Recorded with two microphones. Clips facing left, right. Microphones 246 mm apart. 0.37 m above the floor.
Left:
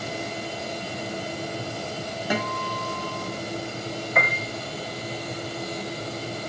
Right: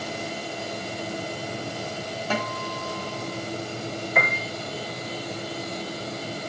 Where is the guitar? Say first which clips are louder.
Left 2 dB; 15° left (ahead or behind), 2.5 m.